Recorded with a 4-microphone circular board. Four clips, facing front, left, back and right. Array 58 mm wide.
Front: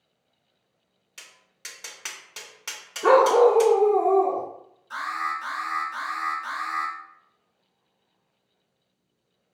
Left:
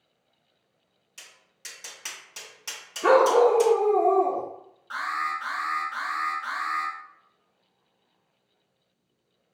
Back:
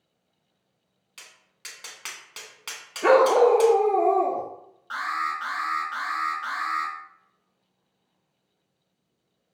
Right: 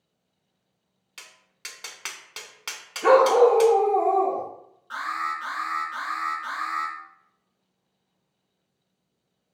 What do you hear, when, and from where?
1.2 s tapping: 100° right, 0.9 m
3.0 s a dog barking: 165° right, 1.3 m
4.9 s an alarm: 175° left, 2.5 m